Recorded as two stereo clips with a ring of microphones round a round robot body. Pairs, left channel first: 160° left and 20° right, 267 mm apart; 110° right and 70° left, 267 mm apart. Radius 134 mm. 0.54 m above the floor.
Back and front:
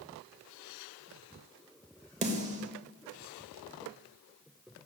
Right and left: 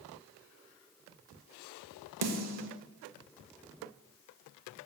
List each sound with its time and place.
2.2 s a snare drum: 40° left, 1.0 m